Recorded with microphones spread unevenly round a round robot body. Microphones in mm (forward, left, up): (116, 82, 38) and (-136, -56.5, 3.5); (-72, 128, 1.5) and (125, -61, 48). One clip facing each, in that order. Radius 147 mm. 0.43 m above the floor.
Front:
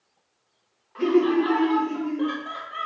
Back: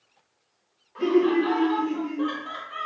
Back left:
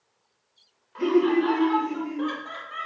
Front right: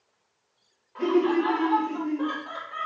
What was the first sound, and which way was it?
Laughter, 95° left.